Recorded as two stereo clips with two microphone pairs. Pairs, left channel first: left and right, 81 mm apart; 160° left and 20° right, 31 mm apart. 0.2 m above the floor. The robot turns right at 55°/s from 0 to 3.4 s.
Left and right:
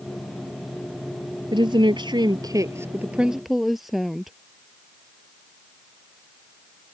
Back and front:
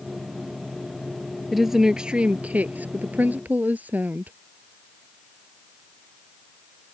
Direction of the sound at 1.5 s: 110° right.